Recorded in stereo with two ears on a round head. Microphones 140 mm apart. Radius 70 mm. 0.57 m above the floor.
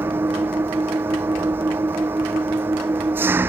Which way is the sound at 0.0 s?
15° right (ahead or behind).